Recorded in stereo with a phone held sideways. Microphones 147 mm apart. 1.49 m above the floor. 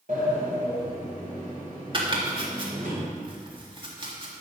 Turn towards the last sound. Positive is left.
turn(degrees=-35)  # may be behind; listen again after turning